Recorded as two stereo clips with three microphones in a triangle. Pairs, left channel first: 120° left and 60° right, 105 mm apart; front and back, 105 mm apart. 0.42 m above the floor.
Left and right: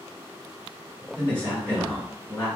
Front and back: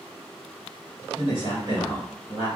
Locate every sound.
1.1 s a man speaking: 165° right, 1.7 m